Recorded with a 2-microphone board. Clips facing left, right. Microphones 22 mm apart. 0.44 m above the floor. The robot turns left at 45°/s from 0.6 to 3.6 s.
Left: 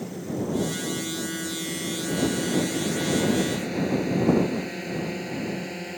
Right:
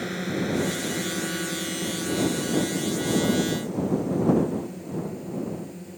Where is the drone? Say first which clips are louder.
Right 2 dB; 70° right (ahead or behind); by 6.0 s 55° left (ahead or behind).